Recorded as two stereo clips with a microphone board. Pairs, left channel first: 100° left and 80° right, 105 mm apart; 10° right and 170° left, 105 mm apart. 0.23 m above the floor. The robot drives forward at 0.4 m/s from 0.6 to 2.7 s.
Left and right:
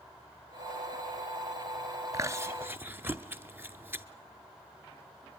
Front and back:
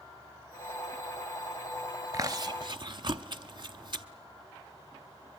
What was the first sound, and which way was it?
Chewing, 135° right.